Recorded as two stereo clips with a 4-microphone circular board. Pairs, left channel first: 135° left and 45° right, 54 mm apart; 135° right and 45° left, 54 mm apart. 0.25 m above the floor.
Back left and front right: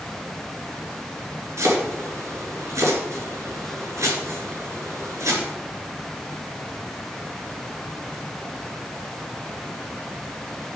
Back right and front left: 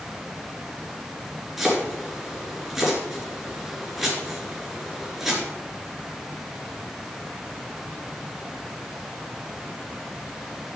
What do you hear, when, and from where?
1.6 s chopping: 40° right, 4.5 m